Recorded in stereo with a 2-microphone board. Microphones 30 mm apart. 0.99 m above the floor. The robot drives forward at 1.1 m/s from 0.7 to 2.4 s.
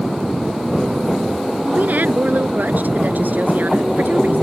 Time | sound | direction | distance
1.8 | a woman speaking | 65° right (ahead or behind) | ?